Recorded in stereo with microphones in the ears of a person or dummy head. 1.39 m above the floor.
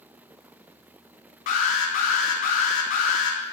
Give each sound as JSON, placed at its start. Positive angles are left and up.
{"t": 1.5, "sound": "an alarm", "side_deg": 45, "distance_m": 1.0}